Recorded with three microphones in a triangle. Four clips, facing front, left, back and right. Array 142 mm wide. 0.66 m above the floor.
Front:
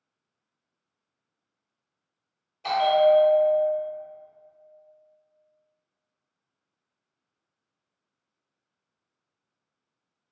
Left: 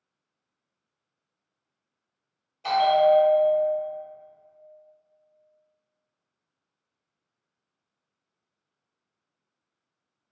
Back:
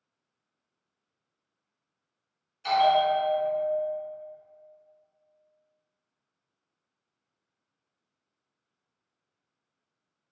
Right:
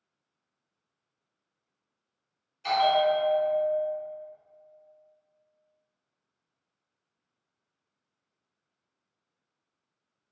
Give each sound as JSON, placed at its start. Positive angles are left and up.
{"t": 2.6, "sound": "a bell", "azimuth_deg": 30, "distance_m": 0.9}